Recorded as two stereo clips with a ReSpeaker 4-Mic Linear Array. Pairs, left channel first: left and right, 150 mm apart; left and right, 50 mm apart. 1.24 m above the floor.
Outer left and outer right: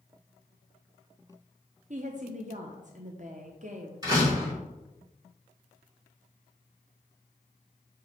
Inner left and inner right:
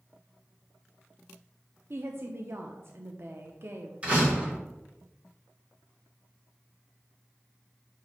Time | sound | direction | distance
1.9 | a woman speaking | 55° right (ahead or behind) | 0.7 m
4.0 | a door slam | 25° right (ahead or behind) | 3 m